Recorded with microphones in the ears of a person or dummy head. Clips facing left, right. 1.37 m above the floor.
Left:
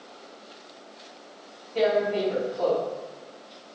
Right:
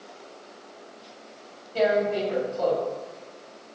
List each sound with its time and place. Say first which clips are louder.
1.8 s tearing paper: even; 60° right (ahead or behind), 1.4 m